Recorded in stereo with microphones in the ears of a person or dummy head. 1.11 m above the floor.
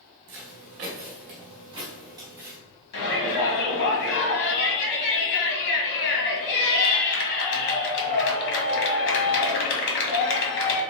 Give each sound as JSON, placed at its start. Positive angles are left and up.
{"t": 0.3, "sound": "footsteps", "side_deg": -45, "distance_m": 1.4}
{"t": 2.9, "sound": "a shout", "side_deg": 55, "distance_m": 1.9}